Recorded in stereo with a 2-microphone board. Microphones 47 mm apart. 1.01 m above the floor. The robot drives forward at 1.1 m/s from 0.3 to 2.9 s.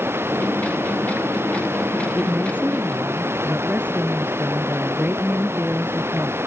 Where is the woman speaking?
40° right (ahead or behind).